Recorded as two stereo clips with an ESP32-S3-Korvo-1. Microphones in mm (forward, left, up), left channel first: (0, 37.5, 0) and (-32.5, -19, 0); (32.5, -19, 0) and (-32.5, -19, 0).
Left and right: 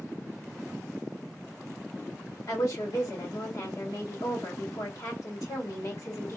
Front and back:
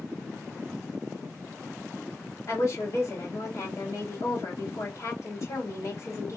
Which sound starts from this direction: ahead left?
A woman speaking, at 2.5 s.